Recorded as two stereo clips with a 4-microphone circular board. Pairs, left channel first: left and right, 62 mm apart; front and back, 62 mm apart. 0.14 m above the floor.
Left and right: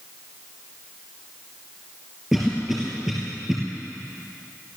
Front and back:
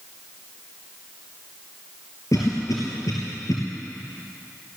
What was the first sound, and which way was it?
A cough, 5° right.